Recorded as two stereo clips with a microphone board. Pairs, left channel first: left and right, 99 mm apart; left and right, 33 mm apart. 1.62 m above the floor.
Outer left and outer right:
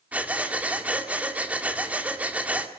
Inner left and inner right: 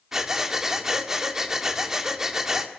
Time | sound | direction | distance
0.1 | breathing | 15° right (ahead or behind) | 1.7 m